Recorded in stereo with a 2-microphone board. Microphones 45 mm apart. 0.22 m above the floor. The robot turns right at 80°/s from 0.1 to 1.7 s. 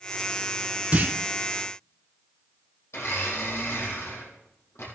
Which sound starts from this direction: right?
A clunk, at 0.9 s.